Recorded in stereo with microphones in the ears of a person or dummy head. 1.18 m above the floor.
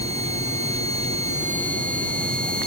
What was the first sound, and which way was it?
Only background noise.